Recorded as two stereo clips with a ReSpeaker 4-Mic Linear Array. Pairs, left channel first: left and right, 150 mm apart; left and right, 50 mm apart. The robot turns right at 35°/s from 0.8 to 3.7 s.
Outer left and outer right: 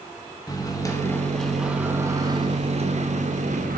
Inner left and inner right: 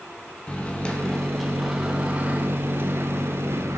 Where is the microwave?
155° left, 1.5 m; by 3.8 s 105° right, 1.5 m.